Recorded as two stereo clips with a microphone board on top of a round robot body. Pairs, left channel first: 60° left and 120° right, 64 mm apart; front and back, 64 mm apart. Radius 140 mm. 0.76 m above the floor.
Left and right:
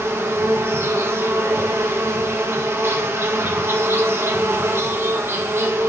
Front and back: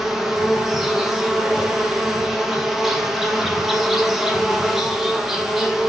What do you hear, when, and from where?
0.0 s an insect: 95° right, 2.0 m